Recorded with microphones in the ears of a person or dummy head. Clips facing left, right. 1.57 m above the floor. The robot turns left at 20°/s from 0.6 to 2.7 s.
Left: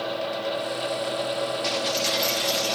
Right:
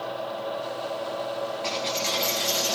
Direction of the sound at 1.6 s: 15° left (ahead or behind).